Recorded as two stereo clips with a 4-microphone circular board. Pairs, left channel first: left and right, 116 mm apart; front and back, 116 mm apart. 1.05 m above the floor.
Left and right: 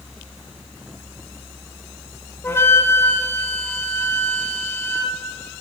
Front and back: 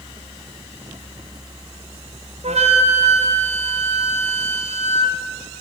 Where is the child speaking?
No child speaking in this recording.